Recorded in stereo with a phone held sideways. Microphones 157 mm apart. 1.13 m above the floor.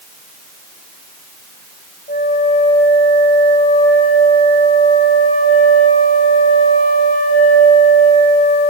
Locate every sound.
2.1 s a flute: 65° left (ahead or behind), 6.5 m